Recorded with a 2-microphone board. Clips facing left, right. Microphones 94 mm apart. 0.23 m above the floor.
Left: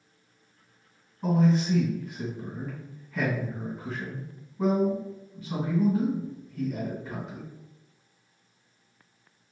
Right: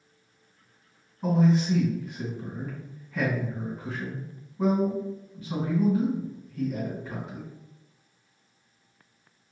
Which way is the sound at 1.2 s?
Centre (ahead or behind).